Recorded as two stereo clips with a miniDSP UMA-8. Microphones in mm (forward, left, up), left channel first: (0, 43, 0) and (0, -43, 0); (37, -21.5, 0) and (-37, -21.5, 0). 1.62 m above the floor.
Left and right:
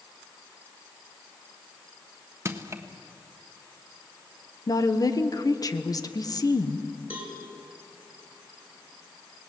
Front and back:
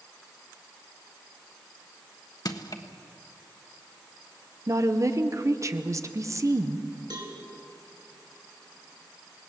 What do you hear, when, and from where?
2.5 s crushing: 30° right, 1.3 m
4.7 s a woman speaking: 135° left, 1.3 m
7.1 s a cowbell: 160° right, 4 m